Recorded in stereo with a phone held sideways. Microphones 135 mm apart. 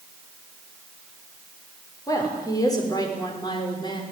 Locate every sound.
2.1 s a woman speaking: 25° left (ahead or behind), 6 m; by 4.0 s 35° left (ahead or behind), 5.5 m